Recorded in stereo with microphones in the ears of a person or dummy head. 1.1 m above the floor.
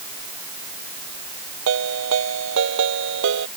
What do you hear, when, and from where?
1.7 s a ringtone: 70° right (ahead or behind)